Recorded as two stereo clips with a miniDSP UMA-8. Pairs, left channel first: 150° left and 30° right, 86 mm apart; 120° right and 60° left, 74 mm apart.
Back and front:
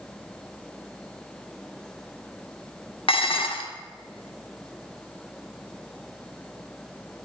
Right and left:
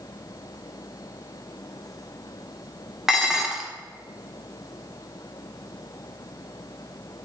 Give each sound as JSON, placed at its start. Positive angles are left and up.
{"t": 3.1, "sound": "dishes clattering", "azimuth_deg": 145, "distance_m": 1.2}